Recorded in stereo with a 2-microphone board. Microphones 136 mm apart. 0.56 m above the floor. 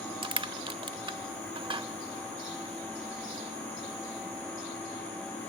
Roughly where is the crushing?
Right.